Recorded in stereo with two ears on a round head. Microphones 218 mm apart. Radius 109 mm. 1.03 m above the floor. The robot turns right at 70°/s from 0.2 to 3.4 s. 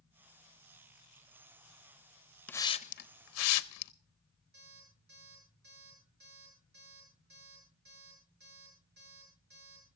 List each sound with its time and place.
2.5 s a hiss: 5° left (ahead or behind), 0.7 m; by 3.9 s 65° left (ahead or behind), 0.7 m
4.5 s an alarm clock: 45° right (ahead or behind), 9.5 m